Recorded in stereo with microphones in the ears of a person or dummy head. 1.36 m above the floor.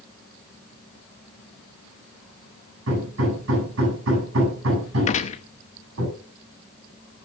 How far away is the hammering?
About 9 m.